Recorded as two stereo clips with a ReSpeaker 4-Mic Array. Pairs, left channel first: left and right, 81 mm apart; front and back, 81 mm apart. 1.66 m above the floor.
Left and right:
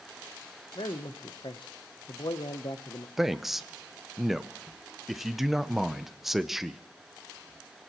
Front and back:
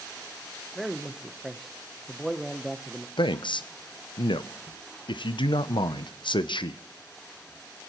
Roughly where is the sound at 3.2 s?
Ahead.